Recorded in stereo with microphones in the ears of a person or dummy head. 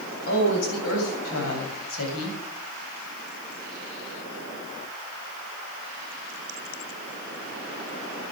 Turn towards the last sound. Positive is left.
turn(degrees=85)